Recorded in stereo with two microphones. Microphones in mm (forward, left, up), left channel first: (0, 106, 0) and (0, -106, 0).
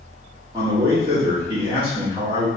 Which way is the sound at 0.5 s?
15° right (ahead or behind).